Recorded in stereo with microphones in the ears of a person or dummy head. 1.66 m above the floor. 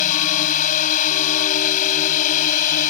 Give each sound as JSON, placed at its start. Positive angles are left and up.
{"t": 0.0, "sound": "a drone", "side_deg": 40}